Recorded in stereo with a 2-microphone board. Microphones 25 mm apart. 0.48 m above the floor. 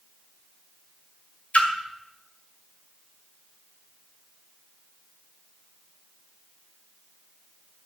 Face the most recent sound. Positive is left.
turn(degrees=60)  # may be behind; listen again after turning